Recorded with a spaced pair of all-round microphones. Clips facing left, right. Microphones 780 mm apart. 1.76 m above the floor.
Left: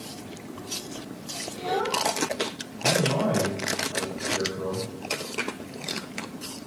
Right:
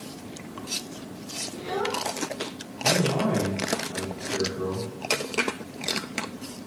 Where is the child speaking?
30° left (ahead or behind), 4.5 m.